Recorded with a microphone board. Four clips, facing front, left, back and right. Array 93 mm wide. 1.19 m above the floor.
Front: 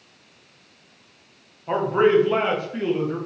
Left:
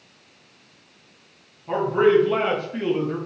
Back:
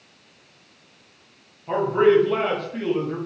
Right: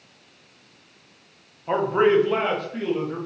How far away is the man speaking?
About 0.7 m.